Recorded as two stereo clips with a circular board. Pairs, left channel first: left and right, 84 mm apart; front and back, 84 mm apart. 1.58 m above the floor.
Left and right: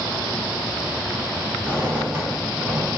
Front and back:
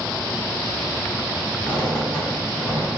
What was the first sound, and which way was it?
A squeak, 60° right.